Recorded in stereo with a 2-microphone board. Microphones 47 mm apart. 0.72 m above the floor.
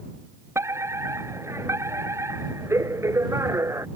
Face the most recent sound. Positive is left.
turn(degrees=-80)